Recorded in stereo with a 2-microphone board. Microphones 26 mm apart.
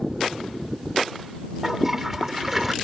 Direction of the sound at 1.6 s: 15° right (ahead or behind).